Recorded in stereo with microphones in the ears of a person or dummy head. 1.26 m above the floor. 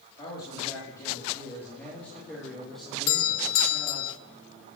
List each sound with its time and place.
0.2 s a man speaking: 30° left (ahead or behind), 3.5 m; by 4.1 s 5° right (ahead or behind), 4 m
3.1 s a doorbell: 70° left (ahead or behind), 0.9 m